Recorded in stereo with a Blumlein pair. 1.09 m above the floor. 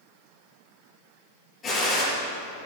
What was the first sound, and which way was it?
A gunshot, 20° left.